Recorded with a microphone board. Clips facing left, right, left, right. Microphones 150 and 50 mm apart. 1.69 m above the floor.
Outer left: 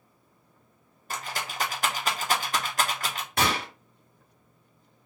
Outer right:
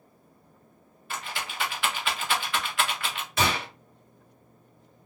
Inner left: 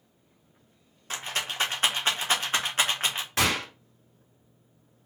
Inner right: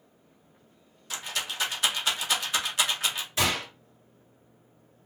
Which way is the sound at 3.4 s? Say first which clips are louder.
Even, inner left 2 dB; 50° left (ahead or behind).